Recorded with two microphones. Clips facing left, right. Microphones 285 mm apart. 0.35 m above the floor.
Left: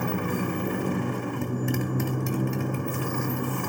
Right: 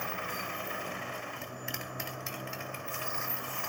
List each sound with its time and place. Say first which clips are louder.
0.0 s a motorcycle: left 14 dB; 55° left (ahead or behind)